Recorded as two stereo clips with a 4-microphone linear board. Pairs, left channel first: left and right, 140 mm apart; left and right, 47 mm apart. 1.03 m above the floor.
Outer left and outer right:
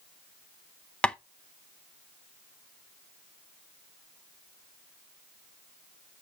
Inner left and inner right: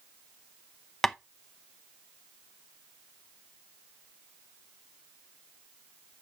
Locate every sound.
1.0 s tapping: 5° left (ahead or behind), 0.7 m